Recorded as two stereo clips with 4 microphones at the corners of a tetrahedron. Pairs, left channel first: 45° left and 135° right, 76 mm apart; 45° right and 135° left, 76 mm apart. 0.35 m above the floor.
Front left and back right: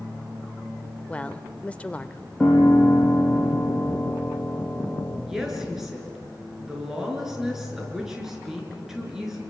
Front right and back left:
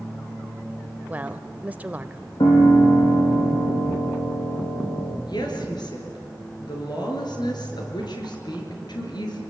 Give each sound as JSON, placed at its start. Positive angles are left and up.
{"t": 1.1, "sound": "a woman speaking", "azimuth_deg": 100, "distance_m": 0.9}
{"t": 2.4, "sound": "a piano", "azimuth_deg": -35, "distance_m": 5.5}
{"t": 5.3, "sound": "a woman speaking", "azimuth_deg": -50, "distance_m": 5.0}